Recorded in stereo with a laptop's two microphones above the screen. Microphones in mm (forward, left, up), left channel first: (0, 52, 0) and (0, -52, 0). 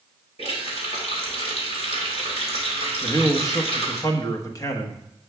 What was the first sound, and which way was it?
A running tap, 65° left (ahead or behind).